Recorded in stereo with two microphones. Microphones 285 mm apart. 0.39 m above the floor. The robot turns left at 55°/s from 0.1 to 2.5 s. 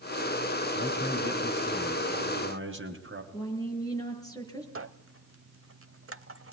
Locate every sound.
0.8 s a man speaking: 45° left, 2.5 m; by 3.2 s 55° right, 2.5 m
3.3 s a woman speaking: 10° left (ahead or behind), 6.5 m
4.8 s a squeak: 50° right (ahead or behind), 0.9 m